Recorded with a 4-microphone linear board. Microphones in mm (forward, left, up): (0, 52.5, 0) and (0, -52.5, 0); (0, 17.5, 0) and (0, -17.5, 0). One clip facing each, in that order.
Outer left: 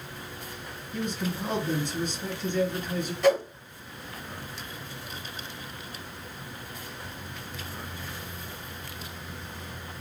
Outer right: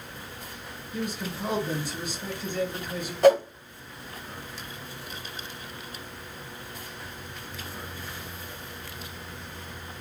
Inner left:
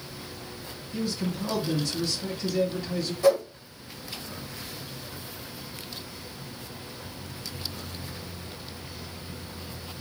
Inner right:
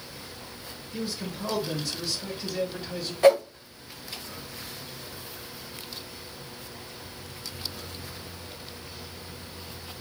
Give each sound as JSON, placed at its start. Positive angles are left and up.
{"t": 0.9, "sound": "a man speaking", "side_deg": -10, "distance_m": 1.1}
{"t": 3.2, "sound": "a whoosh", "side_deg": -45, "distance_m": 0.7}